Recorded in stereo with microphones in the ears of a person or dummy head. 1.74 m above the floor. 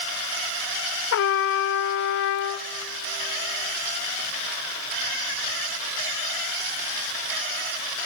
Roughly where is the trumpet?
Left.